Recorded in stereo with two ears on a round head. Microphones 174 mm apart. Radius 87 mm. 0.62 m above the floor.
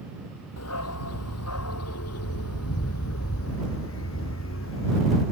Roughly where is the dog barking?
Left.